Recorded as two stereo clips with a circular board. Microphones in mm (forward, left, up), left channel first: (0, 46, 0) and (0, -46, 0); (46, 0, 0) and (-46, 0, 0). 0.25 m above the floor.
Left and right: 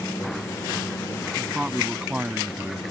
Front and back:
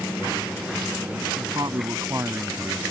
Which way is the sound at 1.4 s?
170° right.